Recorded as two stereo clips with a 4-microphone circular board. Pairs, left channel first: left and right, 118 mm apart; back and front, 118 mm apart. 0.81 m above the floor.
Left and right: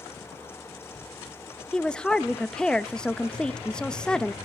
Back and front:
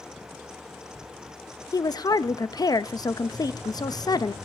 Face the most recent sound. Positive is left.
turn(degrees=170)